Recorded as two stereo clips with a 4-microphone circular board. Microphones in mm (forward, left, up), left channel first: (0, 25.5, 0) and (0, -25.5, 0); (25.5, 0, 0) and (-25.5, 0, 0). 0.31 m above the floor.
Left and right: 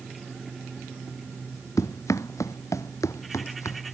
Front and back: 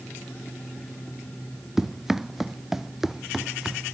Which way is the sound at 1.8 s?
95° left.